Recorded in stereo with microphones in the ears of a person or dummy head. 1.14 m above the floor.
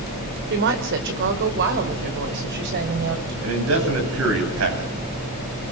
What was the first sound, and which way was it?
A woman speaking, 55° right (ahead or behind).